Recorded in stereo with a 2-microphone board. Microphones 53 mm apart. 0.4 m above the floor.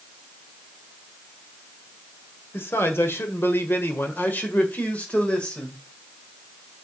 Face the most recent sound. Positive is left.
turn(degrees=15)  # may be behind; listen again after turning